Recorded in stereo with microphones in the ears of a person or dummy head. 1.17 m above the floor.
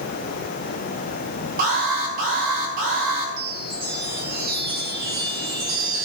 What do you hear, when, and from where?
1.6 s an alarm: 50° right (ahead or behind), 6.5 m
3.4 s a chime: 55° right (ahead or behind), 4 m